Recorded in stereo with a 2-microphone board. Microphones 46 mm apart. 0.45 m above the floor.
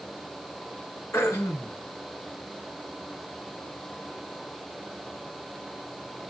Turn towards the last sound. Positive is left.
turn(degrees=85)